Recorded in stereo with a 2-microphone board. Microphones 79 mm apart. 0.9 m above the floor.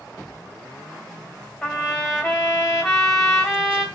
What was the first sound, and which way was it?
A trumpet, 5° left (ahead or behind).